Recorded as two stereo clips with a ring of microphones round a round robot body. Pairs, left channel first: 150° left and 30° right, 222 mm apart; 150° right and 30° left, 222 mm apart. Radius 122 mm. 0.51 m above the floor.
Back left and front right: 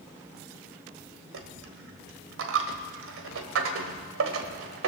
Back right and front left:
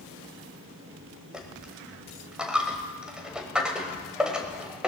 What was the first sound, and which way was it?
A dropped coin, 55° right.